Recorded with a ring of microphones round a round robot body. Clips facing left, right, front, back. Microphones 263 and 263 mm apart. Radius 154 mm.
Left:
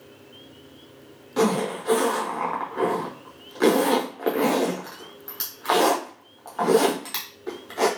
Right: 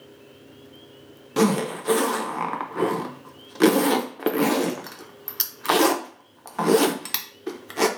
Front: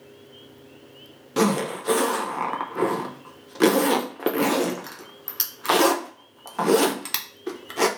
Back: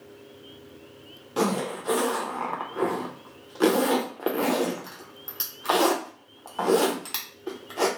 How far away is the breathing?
I don't hear breathing.